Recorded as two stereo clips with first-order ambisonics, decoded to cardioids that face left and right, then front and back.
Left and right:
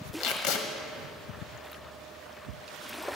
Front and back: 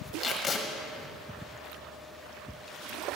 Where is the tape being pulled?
70° left, 1.2 m.